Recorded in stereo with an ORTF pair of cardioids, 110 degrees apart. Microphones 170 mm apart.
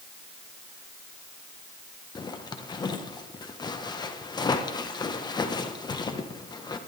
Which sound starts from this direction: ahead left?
A zipper, at 2.1 s.